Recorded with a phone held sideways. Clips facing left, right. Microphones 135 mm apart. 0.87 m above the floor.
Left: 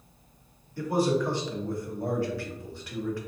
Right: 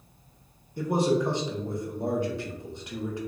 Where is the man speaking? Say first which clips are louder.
Right 1 dB; 20° right (ahead or behind), 0.8 m.